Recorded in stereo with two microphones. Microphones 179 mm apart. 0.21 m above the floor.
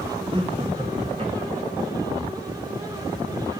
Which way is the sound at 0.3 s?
30° right (ahead or behind).